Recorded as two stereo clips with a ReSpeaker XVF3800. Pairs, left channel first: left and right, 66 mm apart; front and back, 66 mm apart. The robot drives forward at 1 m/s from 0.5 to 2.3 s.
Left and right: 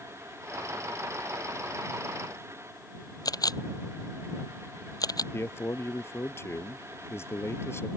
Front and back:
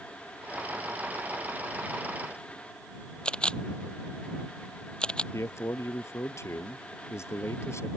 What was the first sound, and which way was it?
A camera shutter, 75° left.